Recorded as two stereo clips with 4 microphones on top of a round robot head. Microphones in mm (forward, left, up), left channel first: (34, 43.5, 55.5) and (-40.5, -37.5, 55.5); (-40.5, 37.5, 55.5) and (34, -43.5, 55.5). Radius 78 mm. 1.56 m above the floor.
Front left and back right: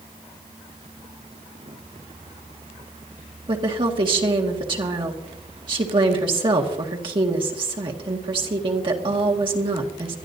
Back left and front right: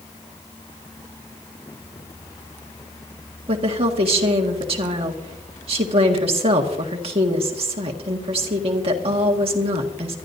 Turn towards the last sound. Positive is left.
turn(degrees=-85)